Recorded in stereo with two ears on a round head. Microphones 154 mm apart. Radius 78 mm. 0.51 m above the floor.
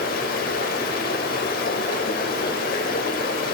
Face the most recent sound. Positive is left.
turn(degrees=55)  # may be behind; listen again after turning